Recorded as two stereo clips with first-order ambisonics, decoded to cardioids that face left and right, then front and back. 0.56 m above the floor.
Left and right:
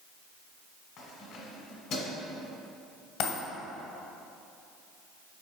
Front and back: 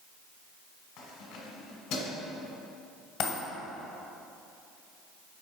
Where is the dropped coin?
55° left, 1.7 m.